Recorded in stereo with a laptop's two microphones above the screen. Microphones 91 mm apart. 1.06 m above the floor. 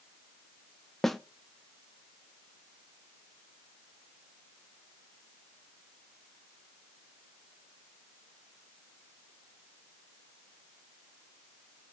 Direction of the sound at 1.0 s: Centre (ahead or behind).